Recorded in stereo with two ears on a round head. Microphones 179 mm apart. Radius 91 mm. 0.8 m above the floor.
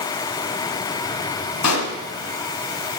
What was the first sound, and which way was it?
A pop, 85° left.